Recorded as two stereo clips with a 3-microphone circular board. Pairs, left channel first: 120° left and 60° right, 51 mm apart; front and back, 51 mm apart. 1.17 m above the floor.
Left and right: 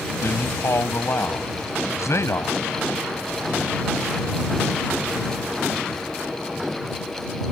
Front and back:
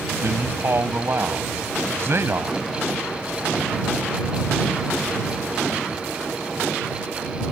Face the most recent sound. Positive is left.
turn(degrees=140)